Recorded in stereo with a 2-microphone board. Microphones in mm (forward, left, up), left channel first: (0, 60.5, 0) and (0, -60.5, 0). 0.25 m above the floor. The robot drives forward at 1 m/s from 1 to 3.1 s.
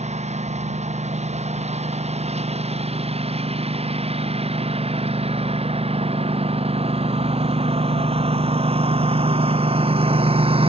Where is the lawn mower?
65° right (ahead or behind); by 10.7 s 50° right (ahead or behind).